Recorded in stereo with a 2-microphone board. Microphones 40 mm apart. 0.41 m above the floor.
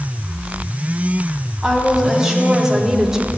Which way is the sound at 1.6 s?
10° right (ahead or behind).